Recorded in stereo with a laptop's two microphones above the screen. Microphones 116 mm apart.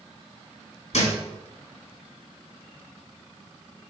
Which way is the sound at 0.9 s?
75° left (ahead or behind).